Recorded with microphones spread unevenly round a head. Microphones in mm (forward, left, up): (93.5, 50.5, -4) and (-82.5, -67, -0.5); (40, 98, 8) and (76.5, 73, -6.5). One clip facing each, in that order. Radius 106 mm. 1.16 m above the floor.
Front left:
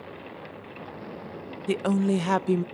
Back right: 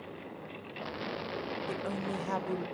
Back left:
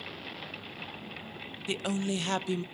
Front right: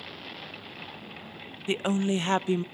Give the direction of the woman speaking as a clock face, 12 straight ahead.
11 o'clock.